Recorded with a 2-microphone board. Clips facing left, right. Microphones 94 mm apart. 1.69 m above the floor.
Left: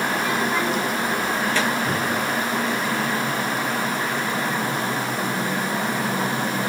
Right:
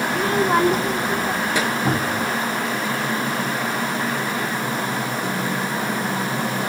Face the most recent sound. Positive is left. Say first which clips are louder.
# right 2 dB
turn(degrees=-40)  # may be behind; listen again after turning